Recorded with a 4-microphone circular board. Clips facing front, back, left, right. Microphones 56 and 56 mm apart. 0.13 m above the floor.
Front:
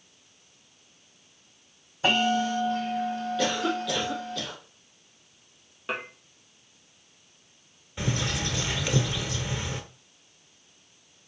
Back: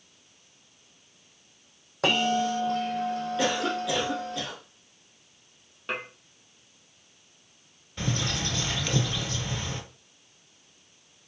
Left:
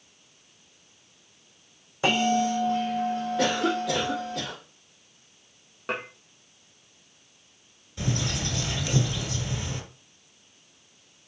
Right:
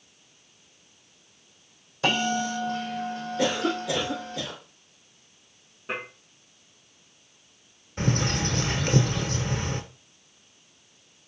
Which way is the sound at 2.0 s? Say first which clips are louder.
Front 1 dB, left 2 dB; 160° left.